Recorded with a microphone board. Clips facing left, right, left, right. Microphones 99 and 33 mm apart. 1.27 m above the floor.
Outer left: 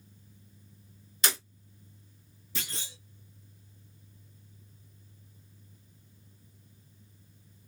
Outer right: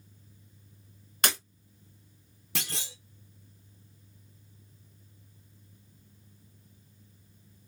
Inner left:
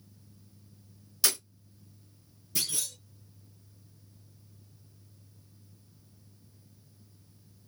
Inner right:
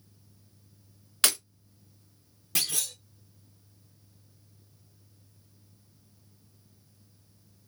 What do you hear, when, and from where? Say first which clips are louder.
1.2 s breaking glass: outer right 3 dB, inner right 4 dB; 60° right (ahead or behind), 1.0 m
2.5 s a clunk: outer right 3 dB, inner right 3 dB; 75° right (ahead or behind), 0.7 m